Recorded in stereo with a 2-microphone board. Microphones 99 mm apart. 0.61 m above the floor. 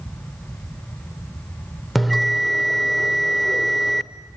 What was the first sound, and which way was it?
A bell, centre (ahead or behind).